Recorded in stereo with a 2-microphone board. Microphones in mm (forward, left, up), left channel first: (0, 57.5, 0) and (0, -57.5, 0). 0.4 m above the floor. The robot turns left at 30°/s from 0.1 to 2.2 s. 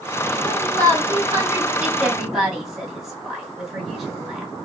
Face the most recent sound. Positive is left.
turn(degrees=-5)  # may be behind; listen again after turning